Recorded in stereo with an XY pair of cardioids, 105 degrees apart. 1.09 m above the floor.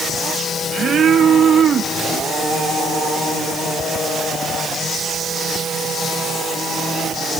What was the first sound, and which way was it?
Only background noise.